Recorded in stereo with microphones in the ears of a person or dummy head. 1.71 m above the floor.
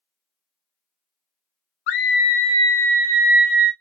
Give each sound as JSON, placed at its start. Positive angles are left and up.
{"t": 1.9, "sound": "a scream", "side_deg": 65, "distance_m": 0.6}